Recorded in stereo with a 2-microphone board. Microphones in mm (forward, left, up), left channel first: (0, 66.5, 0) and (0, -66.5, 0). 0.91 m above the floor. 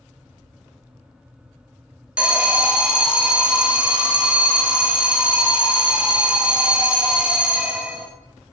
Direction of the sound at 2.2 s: 10° right (ahead or behind).